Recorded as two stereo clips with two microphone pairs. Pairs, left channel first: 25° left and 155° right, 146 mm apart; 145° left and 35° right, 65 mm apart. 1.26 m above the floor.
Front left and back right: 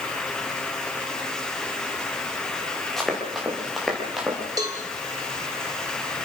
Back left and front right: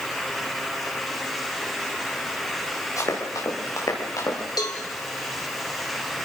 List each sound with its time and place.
3.0 s running footsteps: 115° left, 7.5 m; by 4.4 s 120° left, 8.5 m
4.6 s a cowbell: 145° left, 3.5 m